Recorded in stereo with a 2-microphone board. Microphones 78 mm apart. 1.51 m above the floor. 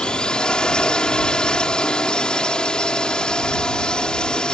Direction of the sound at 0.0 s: 10° left (ahead or behind).